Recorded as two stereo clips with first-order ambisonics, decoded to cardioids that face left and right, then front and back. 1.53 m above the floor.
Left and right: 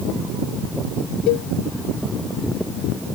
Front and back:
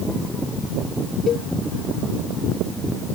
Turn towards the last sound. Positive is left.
turn(degrees=65)